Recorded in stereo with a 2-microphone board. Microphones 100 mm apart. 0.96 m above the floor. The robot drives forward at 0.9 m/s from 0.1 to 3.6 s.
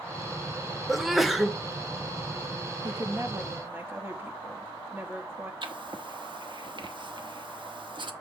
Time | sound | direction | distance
0.9 | a sneeze | centre (ahead or behind) | 0.7 m
2.8 | a woman speaking | 40° right (ahead or behind) | 0.8 m
5.6 | writing | 55° right (ahead or behind) | 0.9 m